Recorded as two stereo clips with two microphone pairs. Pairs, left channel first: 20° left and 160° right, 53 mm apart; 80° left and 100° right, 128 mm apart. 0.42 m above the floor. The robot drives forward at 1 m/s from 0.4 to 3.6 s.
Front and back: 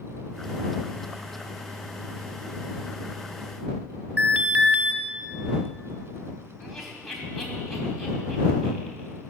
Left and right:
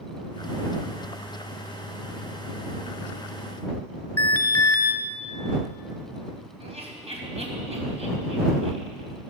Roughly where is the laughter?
Right.